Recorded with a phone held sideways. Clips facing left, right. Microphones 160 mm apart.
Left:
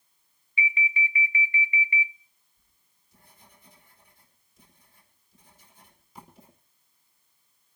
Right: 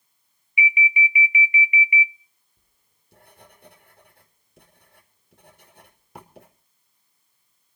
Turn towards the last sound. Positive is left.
turn(degrees=-70)  # may be behind; listen again after turning